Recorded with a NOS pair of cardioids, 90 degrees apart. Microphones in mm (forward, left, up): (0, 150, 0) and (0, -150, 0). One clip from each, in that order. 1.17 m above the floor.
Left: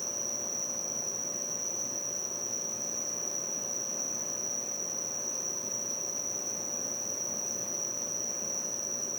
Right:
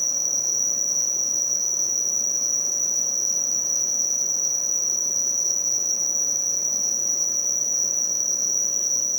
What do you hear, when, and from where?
0.0 s an insect: 60° right, 0.7 m